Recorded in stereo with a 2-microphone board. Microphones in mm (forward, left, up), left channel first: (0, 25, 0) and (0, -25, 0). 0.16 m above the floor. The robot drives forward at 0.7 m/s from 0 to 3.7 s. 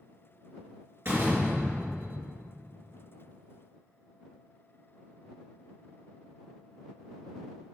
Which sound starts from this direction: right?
A door slam, at 1.1 s.